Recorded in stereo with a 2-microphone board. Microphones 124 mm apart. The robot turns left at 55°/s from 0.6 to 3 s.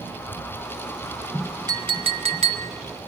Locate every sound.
1.7 s a clink: 40° right, 1.0 m; by 2.7 s 95° right, 1.0 m